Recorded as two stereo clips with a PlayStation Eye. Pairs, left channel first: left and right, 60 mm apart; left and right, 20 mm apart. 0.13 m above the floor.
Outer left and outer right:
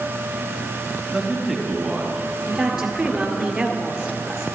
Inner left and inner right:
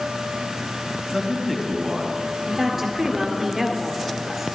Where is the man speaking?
5° right (ahead or behind), 1.7 m.